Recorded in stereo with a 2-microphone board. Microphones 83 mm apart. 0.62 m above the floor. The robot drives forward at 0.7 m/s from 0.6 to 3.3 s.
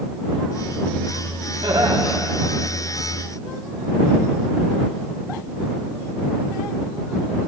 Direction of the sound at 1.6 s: 80° right.